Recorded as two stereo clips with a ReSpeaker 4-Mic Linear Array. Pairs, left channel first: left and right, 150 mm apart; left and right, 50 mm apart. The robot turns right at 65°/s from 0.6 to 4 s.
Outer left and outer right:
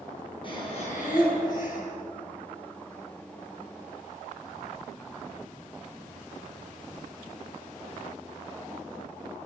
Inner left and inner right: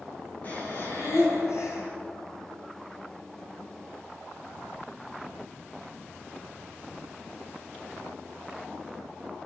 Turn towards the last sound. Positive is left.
turn(degrees=-105)